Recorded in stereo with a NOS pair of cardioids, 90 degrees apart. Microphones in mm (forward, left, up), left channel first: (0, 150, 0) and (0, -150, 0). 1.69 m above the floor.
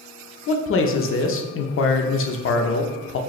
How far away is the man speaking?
About 0.7 m.